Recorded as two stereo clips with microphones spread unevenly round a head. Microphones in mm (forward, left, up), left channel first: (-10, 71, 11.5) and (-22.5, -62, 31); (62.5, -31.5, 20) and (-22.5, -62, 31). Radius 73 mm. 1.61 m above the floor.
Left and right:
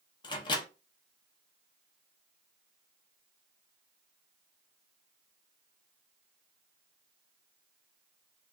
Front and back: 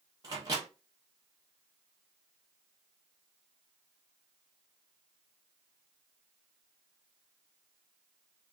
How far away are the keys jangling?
No keys jangling in this recording.